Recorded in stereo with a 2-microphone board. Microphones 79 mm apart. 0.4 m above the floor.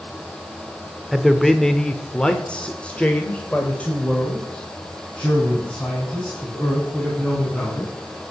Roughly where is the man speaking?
Centre.